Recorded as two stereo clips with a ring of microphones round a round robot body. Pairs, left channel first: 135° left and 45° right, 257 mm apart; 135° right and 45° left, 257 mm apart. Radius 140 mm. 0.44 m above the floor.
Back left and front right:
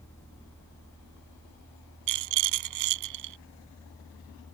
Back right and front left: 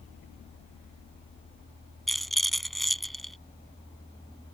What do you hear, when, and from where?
2.1 s a rattle: 45° right